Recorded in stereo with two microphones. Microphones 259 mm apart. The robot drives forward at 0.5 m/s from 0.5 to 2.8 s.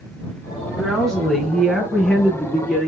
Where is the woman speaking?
Centre (ahead or behind), 3 m.